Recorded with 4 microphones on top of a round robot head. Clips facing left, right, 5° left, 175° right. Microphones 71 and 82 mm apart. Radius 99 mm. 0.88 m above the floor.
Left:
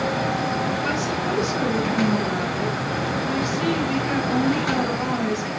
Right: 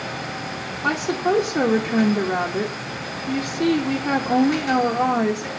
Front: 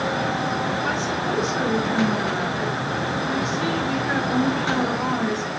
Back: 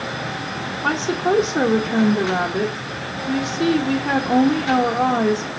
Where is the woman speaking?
135° right, 0.9 m.